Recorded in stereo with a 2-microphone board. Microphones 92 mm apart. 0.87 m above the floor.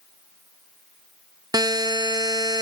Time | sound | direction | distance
1.5 | a buzzer | 45° right (ahead or behind) | 0.9 m